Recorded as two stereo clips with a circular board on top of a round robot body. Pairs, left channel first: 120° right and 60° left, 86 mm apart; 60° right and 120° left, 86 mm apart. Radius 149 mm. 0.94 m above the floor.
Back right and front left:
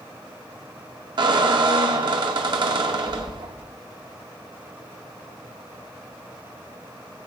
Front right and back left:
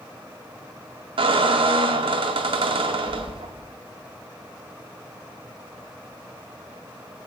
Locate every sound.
1.2 s a squeak: 95° left, 0.6 m